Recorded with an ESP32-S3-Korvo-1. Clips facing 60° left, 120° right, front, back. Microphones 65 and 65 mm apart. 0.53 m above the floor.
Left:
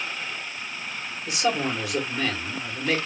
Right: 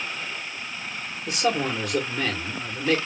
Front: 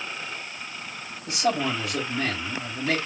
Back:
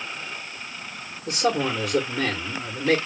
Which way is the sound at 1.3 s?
165° left.